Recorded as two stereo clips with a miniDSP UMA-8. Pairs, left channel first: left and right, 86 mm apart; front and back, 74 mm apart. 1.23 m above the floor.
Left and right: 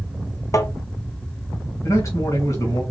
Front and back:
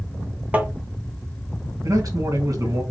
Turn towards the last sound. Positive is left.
turn(degrees=145)